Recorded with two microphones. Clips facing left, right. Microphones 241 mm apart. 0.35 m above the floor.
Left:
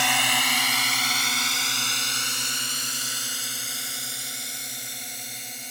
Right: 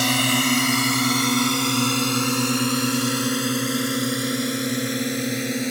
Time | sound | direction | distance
0.0 | a drone | 45° right (ahead or behind) | ?